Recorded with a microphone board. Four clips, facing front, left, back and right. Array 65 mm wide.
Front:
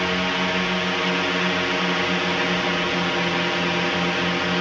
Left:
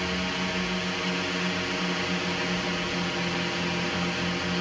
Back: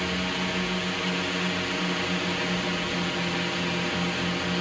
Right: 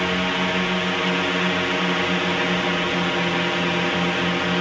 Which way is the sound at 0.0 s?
40° right.